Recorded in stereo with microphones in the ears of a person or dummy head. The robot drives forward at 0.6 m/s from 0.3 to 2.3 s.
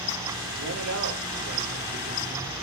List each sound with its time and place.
0.6 s a man speaking: 85° right, 5 m; by 2.5 s 70° right (ahead or behind), 5 m